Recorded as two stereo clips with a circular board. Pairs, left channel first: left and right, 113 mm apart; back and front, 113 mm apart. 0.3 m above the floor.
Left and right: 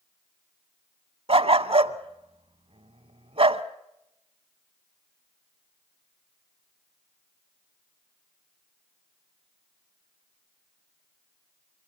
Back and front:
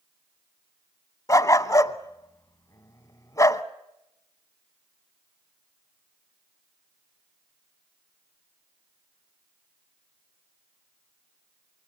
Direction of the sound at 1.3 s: 120° right.